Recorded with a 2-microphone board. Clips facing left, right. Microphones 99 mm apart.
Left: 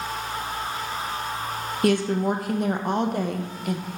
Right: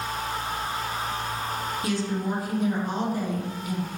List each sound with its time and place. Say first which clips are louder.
1.8 s a woman speaking: left 8 dB; 60° left (ahead or behind), 0.5 m